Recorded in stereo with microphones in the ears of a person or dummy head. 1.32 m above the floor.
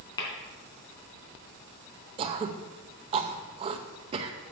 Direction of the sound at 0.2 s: 25° left (ahead or behind).